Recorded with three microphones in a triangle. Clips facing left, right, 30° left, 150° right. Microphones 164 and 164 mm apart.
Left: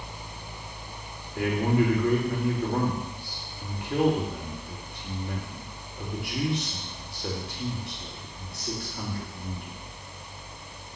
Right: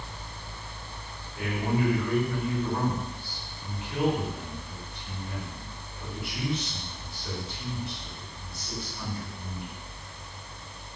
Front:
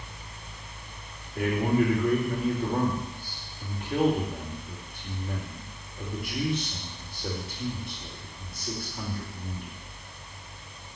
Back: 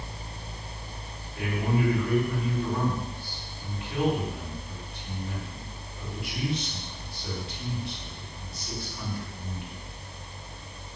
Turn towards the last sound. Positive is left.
turn(degrees=70)